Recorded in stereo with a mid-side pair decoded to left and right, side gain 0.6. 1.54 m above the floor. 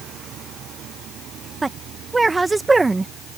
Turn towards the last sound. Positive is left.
turn(degrees=-20)